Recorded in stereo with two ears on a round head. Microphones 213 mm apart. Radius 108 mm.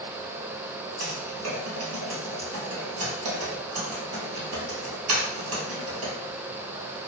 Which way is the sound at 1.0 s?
75° right (ahead or behind).